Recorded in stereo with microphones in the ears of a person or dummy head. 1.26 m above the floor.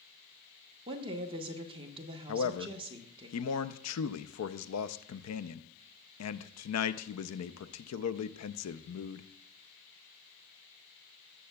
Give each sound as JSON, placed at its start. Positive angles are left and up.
{"t": 0.9, "sound": "a woman speaking", "side_deg": -35, "distance_m": 1.3}
{"t": 2.3, "sound": "a man speaking", "side_deg": 75, "distance_m": 0.6}